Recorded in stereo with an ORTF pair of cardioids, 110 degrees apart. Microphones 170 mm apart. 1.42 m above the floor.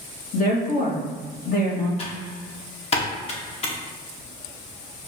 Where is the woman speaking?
55° left, 1.6 m.